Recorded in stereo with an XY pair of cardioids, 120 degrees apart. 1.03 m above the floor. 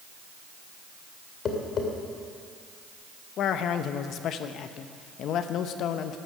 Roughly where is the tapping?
Ahead left.